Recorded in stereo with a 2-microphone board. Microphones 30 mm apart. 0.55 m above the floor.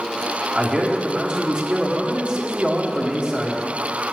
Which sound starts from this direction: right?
A man speaking, at 0.5 s.